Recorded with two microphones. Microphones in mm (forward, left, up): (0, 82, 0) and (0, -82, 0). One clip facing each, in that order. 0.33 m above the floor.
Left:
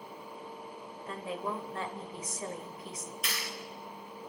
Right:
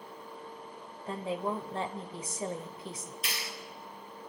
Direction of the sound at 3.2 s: 30° right (ahead or behind).